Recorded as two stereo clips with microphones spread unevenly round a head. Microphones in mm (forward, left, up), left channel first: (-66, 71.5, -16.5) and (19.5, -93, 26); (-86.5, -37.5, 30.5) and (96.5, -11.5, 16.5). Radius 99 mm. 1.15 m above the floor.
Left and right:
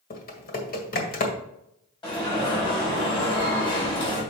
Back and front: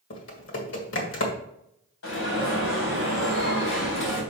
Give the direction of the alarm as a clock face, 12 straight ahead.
6 o'clock.